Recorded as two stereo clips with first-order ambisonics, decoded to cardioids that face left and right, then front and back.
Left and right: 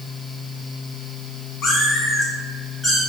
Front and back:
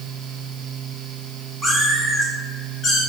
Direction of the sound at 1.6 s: 95° left.